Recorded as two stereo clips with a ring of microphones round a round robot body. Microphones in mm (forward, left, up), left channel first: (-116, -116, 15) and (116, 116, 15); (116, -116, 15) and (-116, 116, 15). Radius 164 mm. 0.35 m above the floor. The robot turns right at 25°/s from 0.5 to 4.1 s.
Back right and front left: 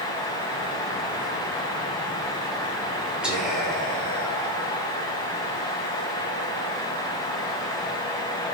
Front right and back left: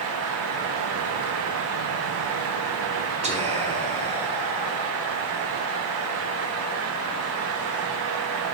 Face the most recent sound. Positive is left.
turn(degrees=150)